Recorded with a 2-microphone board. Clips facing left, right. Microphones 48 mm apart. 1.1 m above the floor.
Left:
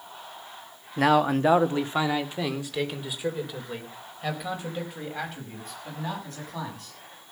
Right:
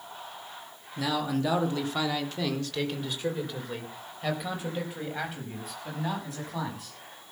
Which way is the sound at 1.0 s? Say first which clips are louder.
Left 8 dB; 50° left (ahead or behind).